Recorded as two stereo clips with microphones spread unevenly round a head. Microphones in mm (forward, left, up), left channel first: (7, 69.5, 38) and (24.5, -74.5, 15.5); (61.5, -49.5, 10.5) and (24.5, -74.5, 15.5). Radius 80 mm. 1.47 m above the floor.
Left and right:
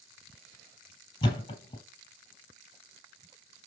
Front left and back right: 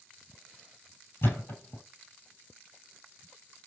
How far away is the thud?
About 1.9 m.